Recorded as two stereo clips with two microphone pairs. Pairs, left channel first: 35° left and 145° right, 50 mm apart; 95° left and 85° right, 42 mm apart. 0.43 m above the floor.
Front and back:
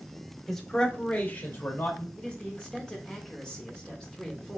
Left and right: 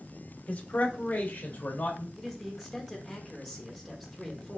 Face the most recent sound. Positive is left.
turn(degrees=5)